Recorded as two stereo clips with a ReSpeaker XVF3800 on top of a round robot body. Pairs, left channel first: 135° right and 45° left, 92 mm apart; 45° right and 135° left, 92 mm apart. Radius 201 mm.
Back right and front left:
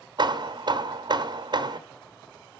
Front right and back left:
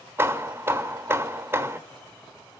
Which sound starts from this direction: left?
Hammering, at 0.2 s.